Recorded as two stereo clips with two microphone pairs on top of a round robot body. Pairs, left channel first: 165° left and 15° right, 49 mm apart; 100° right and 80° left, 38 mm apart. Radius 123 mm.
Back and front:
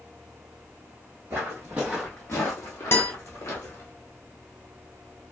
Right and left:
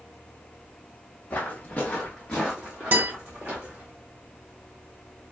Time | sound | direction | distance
1.3 | footsteps | 50° right | 0.7 m
2.9 | a guitar | 120° left | 0.9 m